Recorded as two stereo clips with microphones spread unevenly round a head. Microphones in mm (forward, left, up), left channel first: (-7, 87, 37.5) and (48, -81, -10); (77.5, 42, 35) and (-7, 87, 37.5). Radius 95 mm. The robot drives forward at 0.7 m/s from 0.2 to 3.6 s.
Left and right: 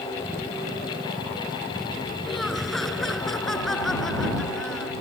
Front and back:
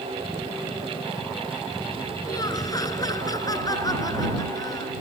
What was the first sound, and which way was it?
Laughter, 20° left.